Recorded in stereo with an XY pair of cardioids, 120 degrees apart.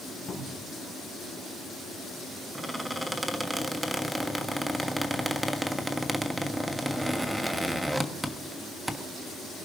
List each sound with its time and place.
0.3 s a cupboard door: 40° left, 5.5 m
2.5 s a squeak: 5° right, 1.2 m